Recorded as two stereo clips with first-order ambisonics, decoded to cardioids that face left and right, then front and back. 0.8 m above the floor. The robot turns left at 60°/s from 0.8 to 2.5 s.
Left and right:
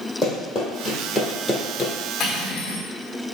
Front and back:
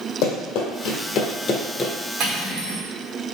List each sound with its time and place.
0.2 s running footsteps: 5° left, 1.8 m; by 1.9 s 60° left, 0.8 m
2.2 s cutlery clinking: 140° left, 1.1 m; by 2.8 s 125° left, 1.1 m